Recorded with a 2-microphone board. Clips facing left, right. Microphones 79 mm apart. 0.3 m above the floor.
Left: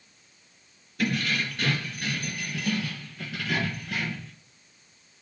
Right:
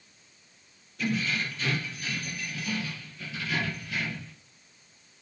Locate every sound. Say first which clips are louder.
1.0 s keys jangling: left 2 dB; 75° left (ahead or behind), 3 m; by 4.3 s 60° left (ahead or behind), 4.5 m